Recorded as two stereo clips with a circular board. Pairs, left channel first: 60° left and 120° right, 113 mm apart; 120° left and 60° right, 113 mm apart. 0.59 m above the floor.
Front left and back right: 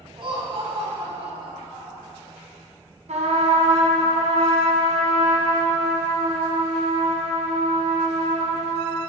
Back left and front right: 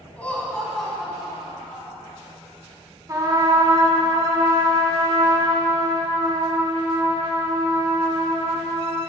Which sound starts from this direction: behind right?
A trumpet, at 3.1 s.